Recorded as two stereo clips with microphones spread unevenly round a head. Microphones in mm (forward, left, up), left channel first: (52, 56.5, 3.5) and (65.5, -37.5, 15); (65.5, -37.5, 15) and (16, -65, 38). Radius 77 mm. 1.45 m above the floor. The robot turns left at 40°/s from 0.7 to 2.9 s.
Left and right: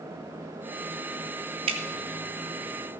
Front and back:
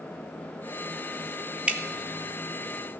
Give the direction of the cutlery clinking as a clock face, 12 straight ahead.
No cutlery clinking in this recording.